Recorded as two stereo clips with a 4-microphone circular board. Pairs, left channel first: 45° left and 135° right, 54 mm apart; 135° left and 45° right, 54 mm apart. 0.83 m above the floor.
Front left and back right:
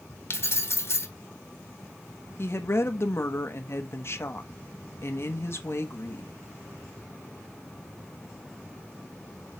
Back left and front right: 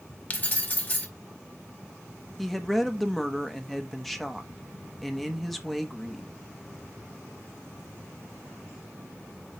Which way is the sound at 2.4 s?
50° left.